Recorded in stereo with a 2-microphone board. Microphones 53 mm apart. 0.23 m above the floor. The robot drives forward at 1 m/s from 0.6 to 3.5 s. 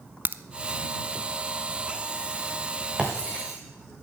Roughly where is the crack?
Right.